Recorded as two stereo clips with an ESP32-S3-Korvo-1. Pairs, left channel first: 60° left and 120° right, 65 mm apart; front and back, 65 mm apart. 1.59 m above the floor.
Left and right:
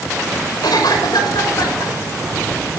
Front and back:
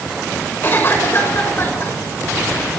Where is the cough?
55° left, 6 m.